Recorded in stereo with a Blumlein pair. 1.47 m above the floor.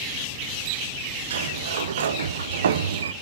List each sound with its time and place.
1.3 s a sliding door: 60° right, 0.6 m